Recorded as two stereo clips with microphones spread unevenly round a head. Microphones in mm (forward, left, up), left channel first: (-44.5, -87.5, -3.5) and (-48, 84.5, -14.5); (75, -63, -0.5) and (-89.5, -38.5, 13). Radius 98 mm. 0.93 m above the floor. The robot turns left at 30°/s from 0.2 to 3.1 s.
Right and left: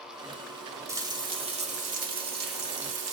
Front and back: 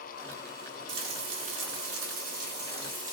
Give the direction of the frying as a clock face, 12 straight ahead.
6 o'clock.